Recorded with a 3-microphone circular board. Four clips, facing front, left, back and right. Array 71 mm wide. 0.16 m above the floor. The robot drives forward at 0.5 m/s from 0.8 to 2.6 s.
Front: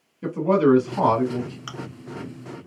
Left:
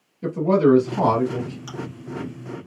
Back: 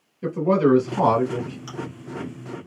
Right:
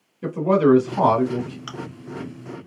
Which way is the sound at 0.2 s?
75° right.